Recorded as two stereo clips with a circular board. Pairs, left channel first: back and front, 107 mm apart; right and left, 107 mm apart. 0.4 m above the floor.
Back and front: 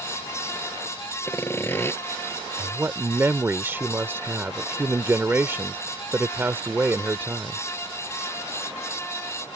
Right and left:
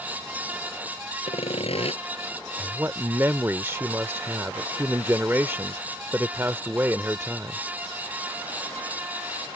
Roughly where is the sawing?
Right.